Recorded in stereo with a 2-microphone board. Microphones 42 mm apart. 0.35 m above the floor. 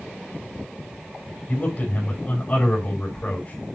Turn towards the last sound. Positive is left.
turn(degrees=35)  # may be behind; listen again after turning